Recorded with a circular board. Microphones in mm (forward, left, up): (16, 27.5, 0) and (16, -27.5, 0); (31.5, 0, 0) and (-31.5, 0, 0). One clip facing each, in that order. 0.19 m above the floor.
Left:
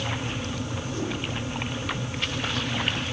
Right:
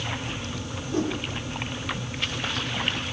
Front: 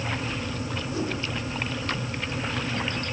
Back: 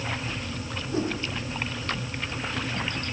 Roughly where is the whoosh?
Behind right.